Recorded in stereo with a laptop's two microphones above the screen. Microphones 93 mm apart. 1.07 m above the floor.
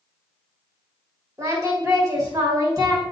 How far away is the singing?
About 1.8 m.